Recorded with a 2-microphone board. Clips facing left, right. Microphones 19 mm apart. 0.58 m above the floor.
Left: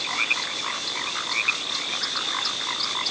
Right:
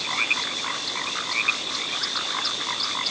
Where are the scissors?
No scissors in this recording.